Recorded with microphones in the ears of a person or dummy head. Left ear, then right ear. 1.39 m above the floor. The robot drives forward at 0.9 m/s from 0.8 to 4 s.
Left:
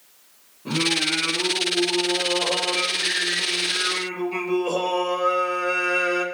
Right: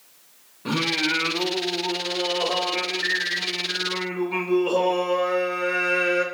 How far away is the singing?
About 1.3 m.